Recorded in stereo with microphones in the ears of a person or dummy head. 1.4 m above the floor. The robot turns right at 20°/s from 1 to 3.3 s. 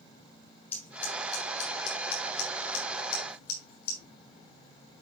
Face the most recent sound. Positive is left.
turn(degrees=60)  # may be behind; listen again after turning